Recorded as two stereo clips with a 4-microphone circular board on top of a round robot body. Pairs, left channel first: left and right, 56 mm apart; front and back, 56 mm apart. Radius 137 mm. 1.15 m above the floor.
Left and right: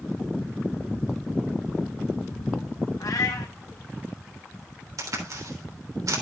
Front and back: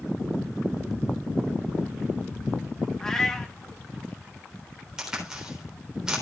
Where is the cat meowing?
80° left, 0.9 m.